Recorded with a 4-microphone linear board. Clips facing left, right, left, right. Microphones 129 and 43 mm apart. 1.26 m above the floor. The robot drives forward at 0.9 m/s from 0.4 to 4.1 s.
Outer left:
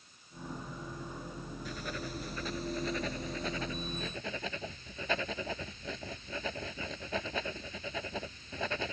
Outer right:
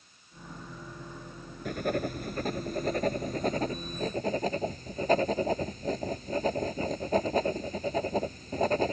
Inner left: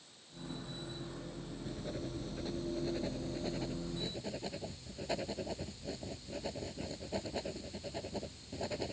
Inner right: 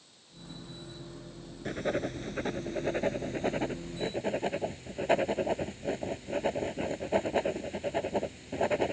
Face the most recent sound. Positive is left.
turn(degrees=-40)  # may be behind; listen again after turning